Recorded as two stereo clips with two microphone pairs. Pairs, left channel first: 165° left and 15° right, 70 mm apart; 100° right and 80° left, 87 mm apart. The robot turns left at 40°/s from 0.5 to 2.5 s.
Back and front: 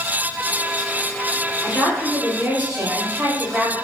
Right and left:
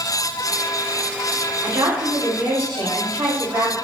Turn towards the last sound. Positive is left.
turn(degrees=55)